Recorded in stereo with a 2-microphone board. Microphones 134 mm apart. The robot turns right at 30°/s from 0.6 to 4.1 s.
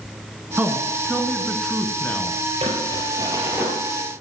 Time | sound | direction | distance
0.6 | a man speaking | 20° right | 1.7 m
2.6 | crumpling | 50° right | 3.5 m